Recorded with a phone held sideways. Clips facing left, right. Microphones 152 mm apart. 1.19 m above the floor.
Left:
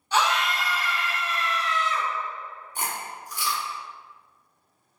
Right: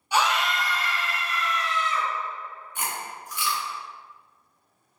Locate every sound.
0.1 s a scream: 10° right (ahead or behind), 1.2 m; by 2.1 s 45° left (ahead or behind), 1.4 m
2.8 s chewing: 35° left (ahead or behind), 1.0 m